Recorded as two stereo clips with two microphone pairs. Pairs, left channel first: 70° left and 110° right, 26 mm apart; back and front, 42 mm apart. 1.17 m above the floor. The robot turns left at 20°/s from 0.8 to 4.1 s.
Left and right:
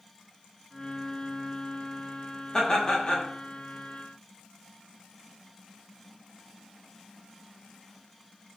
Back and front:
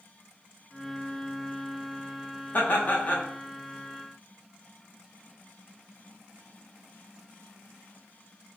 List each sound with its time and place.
2.5 s laughter: 140° left, 0.9 m; by 3.3 s 125° left, 0.9 m